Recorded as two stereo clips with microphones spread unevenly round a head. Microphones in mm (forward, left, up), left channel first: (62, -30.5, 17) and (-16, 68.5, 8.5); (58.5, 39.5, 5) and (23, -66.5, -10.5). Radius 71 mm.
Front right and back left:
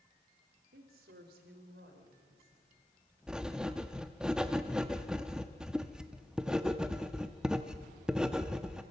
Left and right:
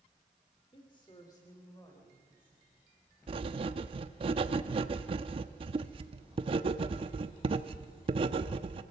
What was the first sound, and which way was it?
A woman speaking, 130° left.